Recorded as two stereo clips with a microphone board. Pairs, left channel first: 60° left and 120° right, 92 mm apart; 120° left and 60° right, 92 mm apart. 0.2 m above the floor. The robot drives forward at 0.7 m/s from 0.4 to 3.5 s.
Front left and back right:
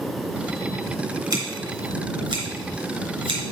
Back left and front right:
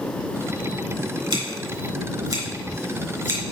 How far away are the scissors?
About 2.5 m.